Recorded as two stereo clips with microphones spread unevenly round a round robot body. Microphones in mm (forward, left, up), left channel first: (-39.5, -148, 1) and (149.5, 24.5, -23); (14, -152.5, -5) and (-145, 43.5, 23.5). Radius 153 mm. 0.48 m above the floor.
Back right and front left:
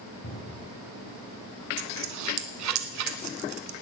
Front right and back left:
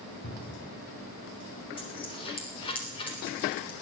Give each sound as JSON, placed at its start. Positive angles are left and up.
{"t": 0.2, "sound": "a cupboard door", "azimuth_deg": -85, "distance_m": 6.0}
{"t": 1.8, "sound": "a dropped coin", "azimuth_deg": 25, "distance_m": 1.3}